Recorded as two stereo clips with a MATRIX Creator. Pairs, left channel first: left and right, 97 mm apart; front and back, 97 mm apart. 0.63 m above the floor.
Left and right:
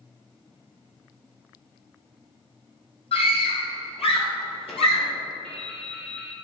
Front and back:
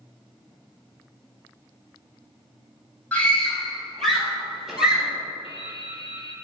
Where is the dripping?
10° left, 2 m.